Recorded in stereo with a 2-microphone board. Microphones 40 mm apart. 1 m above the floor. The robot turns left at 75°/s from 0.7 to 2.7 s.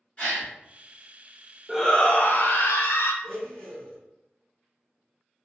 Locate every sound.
0.2 s a gasp: 35° left (ahead or behind), 1.6 m
1.7 s a shout: 175° left, 0.6 m; by 3.1 s 100° left, 0.6 m
3.2 s a blender: 15° left (ahead or behind), 2.0 m